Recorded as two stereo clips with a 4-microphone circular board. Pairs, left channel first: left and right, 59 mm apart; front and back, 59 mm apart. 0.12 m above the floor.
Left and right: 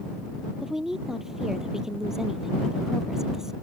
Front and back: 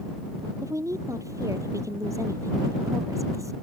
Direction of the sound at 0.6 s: 170° right.